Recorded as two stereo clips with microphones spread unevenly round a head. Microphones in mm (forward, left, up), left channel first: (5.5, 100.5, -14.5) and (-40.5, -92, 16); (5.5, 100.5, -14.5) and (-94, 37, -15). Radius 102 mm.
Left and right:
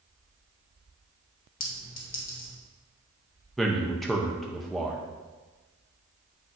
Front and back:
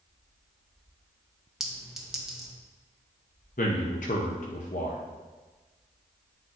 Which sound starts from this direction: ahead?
A man speaking, at 3.6 s.